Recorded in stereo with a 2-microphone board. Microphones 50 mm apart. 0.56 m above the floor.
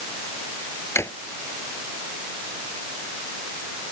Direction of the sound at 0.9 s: 60° left (ahead or behind).